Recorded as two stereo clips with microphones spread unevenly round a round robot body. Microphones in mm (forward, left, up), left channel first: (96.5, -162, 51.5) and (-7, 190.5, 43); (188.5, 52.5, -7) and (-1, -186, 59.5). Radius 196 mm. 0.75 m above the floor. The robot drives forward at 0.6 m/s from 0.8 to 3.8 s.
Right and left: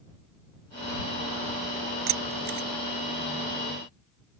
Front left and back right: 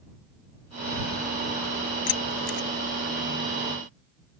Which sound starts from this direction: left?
Keys jangling, at 2.1 s.